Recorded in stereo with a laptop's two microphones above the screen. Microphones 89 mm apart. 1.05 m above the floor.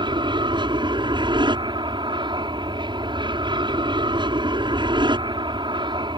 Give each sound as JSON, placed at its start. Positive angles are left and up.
{"t": 0.0, "sound": "an aircraft", "side_deg": -60}